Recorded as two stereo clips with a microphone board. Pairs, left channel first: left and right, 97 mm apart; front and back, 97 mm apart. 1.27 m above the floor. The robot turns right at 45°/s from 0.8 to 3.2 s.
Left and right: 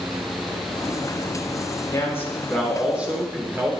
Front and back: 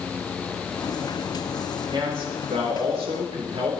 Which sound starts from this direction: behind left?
A man speaking, at 1.9 s.